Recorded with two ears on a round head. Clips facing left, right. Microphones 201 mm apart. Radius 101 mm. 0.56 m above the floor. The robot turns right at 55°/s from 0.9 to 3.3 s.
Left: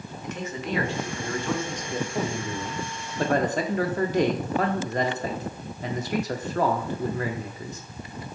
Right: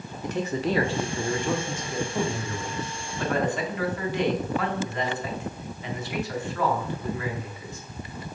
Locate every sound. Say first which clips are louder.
0.2 s a man speaking: right 6 dB; 55° right, 1.1 m; by 7.8 s 75° left, 1.1 m